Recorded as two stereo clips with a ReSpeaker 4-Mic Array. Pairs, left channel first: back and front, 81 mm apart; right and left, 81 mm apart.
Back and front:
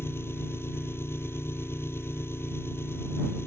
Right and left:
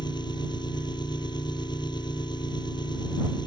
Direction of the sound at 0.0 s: 120° right.